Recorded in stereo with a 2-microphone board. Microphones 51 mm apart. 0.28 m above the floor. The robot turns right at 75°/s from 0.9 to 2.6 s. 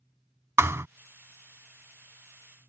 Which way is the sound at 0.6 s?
65° right (ahead or behind).